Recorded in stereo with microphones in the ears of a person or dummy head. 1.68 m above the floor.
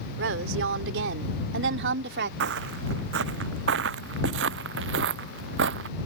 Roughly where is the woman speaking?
Right.